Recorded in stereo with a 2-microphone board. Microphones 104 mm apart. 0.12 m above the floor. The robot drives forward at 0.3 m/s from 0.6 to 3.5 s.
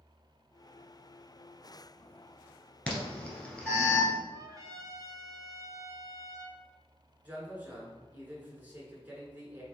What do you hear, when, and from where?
2.9 s an alarm: 10° left (ahead or behind), 1.2 m; by 4.1 s 15° left (ahead or behind), 1.0 m
4.3 s a trumpet: 35° right (ahead or behind), 0.8 m
7.2 s a man speaking: 15° right (ahead or behind), 1.1 m